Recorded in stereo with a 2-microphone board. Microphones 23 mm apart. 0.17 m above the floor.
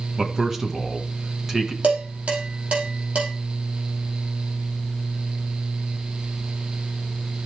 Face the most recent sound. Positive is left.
turn(degrees=-80)